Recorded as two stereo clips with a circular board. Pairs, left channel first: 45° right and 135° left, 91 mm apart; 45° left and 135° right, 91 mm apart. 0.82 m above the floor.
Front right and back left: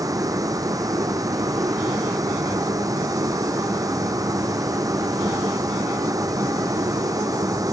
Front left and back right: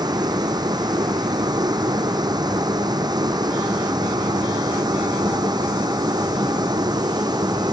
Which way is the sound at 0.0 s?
175° right.